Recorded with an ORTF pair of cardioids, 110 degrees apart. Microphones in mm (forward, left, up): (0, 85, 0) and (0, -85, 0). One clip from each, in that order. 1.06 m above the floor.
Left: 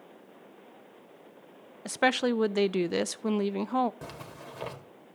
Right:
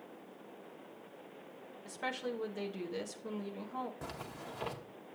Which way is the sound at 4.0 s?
20° left.